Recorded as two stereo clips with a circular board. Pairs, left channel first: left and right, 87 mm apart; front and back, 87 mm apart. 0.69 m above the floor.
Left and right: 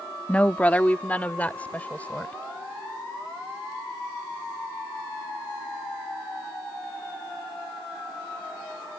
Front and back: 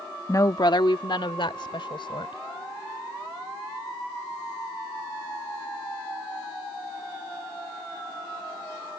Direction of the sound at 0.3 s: 20° left.